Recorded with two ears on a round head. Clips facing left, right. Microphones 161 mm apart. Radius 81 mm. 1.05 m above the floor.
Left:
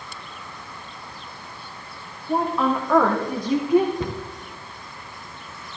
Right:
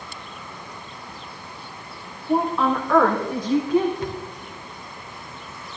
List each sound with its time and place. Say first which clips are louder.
2.3 s a woman speaking: right 1 dB; 5° right (ahead or behind), 2.5 m; by 3.9 s 20° left (ahead or behind), 3.5 m
4.0 s a cupboard door: left 1 dB; 70° left (ahead or behind), 1.5 m